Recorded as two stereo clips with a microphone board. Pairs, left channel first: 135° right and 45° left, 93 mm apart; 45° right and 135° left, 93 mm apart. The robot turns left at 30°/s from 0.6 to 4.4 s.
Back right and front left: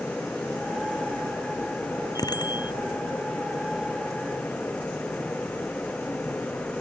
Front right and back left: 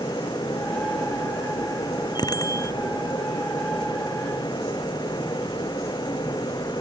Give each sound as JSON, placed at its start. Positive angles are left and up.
{"t": 2.1, "sound": "a bicycle bell", "azimuth_deg": -90}